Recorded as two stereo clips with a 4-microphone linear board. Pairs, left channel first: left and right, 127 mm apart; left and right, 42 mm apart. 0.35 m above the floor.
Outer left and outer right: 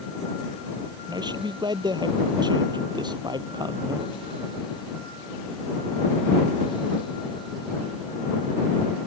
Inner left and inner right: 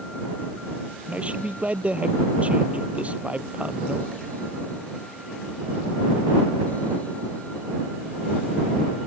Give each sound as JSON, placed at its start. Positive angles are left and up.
{"t": 1.1, "sound": "a man speaking", "side_deg": -35}